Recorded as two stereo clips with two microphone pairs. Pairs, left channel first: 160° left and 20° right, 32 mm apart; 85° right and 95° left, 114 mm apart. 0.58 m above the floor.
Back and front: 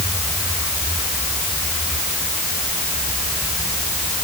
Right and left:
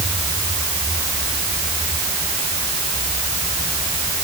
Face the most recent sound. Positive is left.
No sound to turn to.